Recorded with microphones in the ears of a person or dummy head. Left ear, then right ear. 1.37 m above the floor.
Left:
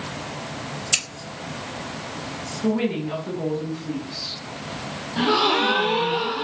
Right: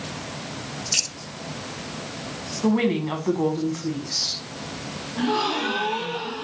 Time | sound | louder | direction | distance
0.9 | scissors | even | 30° left (ahead or behind) | 1.0 m
2.6 | a woman speaking | right 2 dB | 75° right (ahead or behind) | 1.0 m
5.2 | a gasp | left 5 dB | 70° left (ahead or behind) | 0.5 m